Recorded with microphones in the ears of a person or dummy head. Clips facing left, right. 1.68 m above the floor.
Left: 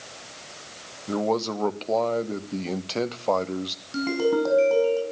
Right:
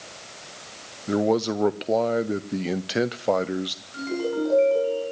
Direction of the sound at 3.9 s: 70° left (ahead or behind).